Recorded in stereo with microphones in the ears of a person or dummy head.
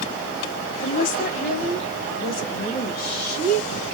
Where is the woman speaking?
45° left (ahead or behind), 0.7 m; by 3.9 s 65° left (ahead or behind), 3 m.